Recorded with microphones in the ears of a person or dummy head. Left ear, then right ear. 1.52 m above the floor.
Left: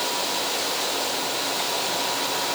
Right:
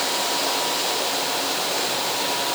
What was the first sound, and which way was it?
Only background noise.